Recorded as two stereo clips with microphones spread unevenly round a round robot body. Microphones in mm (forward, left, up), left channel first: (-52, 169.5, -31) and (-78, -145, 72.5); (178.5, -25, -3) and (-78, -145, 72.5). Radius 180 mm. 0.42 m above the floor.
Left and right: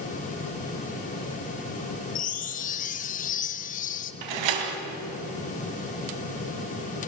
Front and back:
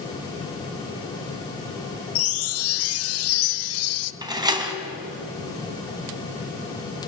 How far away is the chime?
About 0.7 m.